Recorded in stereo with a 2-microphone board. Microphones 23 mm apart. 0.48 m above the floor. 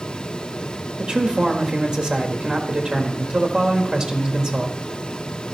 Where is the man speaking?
35° right (ahead or behind), 1.4 m.